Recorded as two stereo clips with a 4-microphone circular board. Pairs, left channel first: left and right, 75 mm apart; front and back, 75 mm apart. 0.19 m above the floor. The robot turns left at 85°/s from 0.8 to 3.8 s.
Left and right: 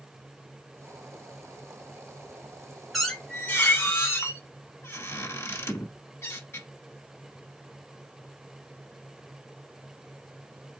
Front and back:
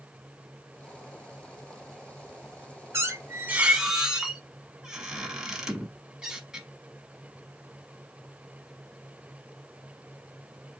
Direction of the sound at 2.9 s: Straight behind.